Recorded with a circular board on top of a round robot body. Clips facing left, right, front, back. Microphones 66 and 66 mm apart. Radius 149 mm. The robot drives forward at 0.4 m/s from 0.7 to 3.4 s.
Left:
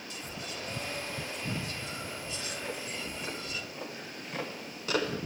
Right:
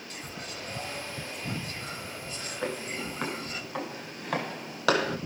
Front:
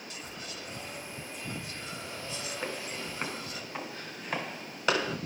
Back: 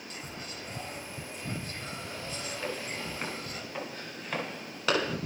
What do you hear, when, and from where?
0.1 s whispering: 130° right, 5.5 m; by 3.6 s 135° right, 6 m
2.6 s footsteps: 75° right, 7 m; by 5.2 s 90° right, 7.5 m